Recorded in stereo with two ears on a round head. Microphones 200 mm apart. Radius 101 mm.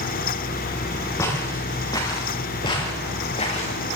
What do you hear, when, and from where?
1.2 s footsteps: 15° left (ahead or behind), 7 m; by 3.8 s 30° left (ahead or behind), 4.5 m